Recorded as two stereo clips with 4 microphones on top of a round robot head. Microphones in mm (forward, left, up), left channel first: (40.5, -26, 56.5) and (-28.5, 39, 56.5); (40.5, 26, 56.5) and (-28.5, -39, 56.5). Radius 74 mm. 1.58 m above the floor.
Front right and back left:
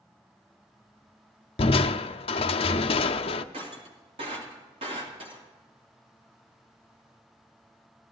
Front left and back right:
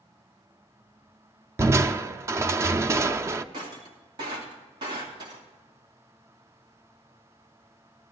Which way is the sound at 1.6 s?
75° right.